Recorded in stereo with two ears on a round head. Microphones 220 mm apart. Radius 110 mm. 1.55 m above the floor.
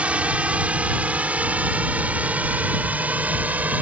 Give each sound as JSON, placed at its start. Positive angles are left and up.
{"t": 0.0, "sound": "a drone", "side_deg": -5}